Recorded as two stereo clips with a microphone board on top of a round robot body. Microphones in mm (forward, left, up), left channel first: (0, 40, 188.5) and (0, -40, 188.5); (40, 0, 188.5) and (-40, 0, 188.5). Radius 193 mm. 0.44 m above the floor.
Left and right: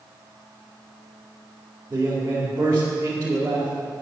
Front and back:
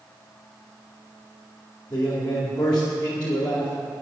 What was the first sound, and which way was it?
A man speaking, 30° right.